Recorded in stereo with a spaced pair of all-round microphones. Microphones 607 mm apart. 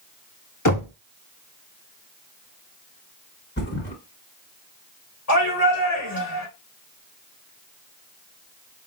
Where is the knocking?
30° left (ahead or behind), 0.7 m.